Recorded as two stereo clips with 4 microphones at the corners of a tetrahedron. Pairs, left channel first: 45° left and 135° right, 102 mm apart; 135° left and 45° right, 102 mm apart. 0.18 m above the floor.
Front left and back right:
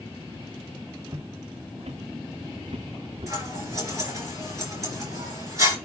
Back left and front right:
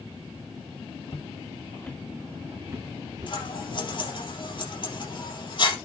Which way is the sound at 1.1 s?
170° left.